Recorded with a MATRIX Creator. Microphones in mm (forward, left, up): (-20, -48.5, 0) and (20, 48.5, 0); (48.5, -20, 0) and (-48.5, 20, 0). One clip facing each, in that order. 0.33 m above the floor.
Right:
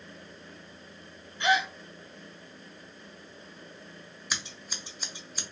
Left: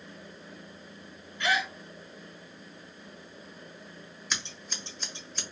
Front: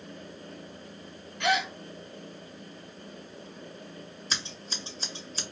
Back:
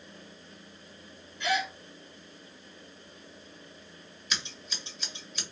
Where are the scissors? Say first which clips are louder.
Even, even; 35° right, 1.3 m.